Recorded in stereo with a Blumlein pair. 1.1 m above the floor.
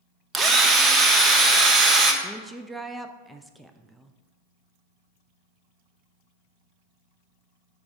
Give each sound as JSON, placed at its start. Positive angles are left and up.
{"t": 0.3, "sound": "a drill", "azimuth_deg": -15, "distance_m": 0.9}
{"t": 2.2, "sound": "a woman speaking", "azimuth_deg": -5, "distance_m": 0.5}